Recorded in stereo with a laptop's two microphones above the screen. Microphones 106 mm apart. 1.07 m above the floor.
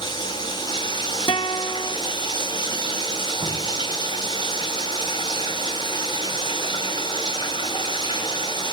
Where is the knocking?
85° right, 7 m.